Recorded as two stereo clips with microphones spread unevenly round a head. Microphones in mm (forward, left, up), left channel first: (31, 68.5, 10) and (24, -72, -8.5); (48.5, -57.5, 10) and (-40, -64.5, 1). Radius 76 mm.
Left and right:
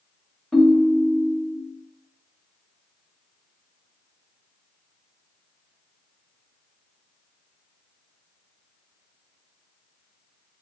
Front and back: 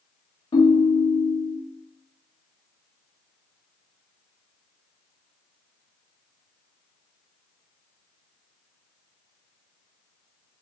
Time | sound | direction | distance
0.5 | a ringtone | straight ahead | 0.6 m